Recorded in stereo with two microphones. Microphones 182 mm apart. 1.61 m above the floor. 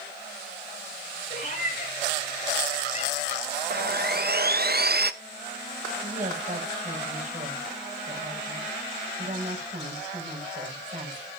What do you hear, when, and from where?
1.3 s a cat meowing: 50° left (ahead or behind), 8 m; by 3.4 s 45° left (ahead or behind), 7.5 m
3.7 s sawing: 60° right (ahead or behind), 0.7 m
6.0 s a woman speaking: 40° right (ahead or behind), 7 m